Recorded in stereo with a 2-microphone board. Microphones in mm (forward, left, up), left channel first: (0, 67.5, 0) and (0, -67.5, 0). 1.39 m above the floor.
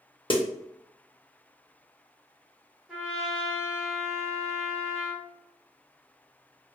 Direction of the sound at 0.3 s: 40° left (ahead or behind).